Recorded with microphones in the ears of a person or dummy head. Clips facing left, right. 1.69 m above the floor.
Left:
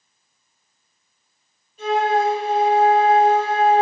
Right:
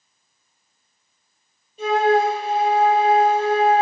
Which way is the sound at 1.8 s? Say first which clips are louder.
Right 2 dB; 20° right (ahead or behind).